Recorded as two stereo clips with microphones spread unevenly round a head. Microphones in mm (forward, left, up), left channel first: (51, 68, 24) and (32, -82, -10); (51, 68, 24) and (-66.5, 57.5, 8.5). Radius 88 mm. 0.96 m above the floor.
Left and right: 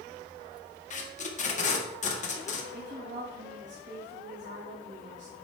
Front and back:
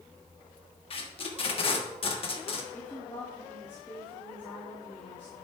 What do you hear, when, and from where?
0.9 s tape being pulled: 45° left, 1.6 m
2.7 s a woman speaking: 70° right, 2.5 m